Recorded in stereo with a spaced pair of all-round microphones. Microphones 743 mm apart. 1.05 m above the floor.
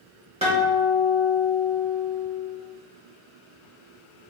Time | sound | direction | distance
0.4 | a guitar | 10° right (ahead or behind) | 1.6 m